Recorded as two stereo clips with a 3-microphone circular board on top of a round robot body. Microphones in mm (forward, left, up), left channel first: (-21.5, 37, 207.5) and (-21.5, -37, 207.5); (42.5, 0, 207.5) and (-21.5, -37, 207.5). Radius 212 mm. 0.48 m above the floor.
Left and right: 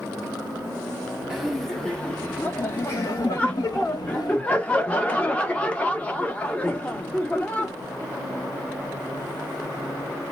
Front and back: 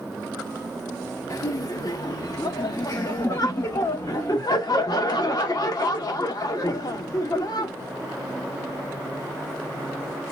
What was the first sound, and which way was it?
Laughter, 5° right.